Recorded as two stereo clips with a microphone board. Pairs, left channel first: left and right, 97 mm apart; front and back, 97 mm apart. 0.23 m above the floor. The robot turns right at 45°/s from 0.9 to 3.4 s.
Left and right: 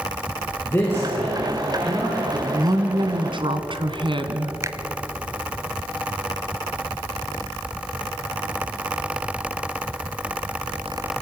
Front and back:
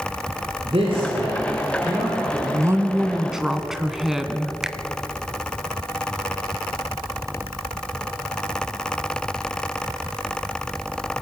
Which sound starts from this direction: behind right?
A woman speaking, at 2.3 s.